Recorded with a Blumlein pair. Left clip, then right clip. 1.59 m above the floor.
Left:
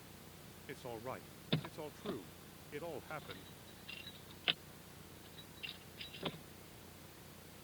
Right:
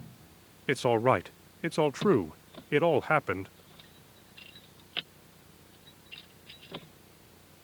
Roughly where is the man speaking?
Ahead right.